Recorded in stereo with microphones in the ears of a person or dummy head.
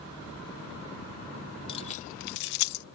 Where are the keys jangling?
25° left (ahead or behind); by 2.9 s 55° left (ahead or behind).